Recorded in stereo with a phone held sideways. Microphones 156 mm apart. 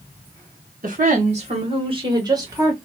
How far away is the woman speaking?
About 1.3 m.